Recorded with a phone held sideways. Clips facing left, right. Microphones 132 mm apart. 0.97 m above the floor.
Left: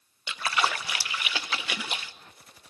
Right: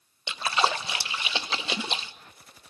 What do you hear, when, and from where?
0.3 s a splash: 25° right (ahead or behind), 0.5 m